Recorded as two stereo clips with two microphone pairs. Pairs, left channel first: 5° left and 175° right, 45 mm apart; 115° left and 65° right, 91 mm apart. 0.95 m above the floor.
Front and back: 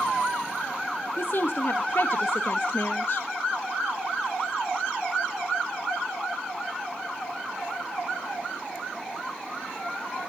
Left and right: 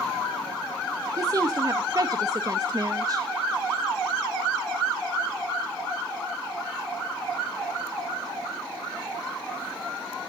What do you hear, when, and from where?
1.2 s a woman speaking: 25° right, 1.2 m